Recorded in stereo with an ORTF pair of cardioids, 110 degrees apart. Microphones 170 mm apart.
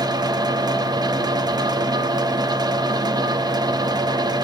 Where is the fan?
25° right, 0.8 m.